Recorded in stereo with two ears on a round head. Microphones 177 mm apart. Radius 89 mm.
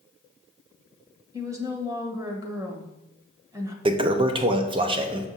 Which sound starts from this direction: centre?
A woman speaking, at 1.3 s.